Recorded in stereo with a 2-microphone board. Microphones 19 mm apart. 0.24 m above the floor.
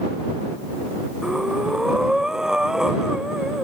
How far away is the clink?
I don't hear a clink.